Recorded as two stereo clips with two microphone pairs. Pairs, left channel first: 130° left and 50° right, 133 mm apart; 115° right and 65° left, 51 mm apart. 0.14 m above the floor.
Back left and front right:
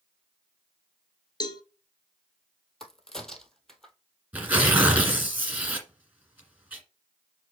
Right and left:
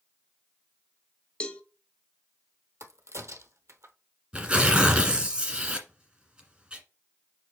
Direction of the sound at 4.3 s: 20° left.